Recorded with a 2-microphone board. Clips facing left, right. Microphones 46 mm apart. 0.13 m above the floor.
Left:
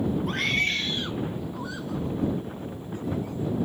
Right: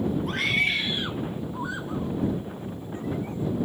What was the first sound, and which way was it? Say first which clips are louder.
A scream: right 3 dB; centre (ahead or behind).